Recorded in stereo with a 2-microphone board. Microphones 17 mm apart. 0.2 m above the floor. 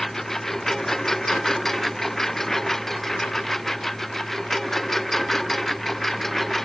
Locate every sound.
0.0 s a lawn mower: 20° left (ahead or behind); by 6.7 s 15° left (ahead or behind)